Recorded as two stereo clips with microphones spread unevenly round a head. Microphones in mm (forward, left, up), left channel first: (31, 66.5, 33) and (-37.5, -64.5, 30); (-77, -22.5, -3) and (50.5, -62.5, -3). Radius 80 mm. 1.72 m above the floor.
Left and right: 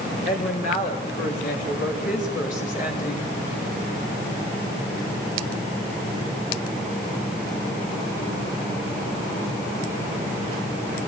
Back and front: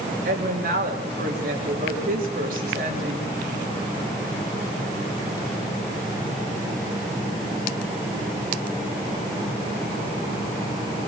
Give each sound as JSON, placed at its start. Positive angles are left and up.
{"t": 0.2, "sound": "a woman speaking", "azimuth_deg": 20, "distance_m": 3.5}